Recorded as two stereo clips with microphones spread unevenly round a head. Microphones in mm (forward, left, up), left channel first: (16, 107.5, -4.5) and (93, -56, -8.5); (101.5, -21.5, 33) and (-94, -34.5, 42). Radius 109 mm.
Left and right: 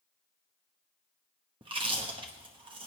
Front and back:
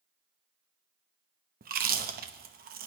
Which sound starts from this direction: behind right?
Chewing, at 1.6 s.